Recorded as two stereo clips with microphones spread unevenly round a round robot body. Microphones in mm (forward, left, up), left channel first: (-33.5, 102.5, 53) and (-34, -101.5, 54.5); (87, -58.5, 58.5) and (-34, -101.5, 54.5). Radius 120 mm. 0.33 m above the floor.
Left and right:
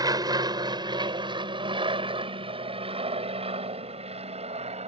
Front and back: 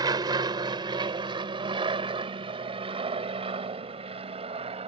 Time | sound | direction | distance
0.0 | an aircraft | 145° right | ?